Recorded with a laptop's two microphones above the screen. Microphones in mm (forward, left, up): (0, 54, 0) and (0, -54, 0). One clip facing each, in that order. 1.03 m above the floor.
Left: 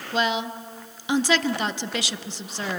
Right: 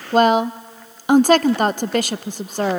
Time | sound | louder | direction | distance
0.1 | a woman speaking | right 10 dB | 50° right (ahead or behind) | 0.5 m